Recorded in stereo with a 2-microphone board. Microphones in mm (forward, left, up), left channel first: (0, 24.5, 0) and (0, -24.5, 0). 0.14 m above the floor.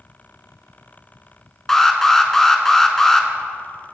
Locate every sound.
1.7 s an alarm: 10° left (ahead or behind), 0.9 m